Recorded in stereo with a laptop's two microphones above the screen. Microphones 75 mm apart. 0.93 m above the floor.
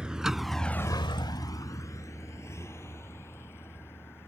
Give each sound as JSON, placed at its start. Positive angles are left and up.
{"t": 0.0, "sound": "a vehicle", "side_deg": -10}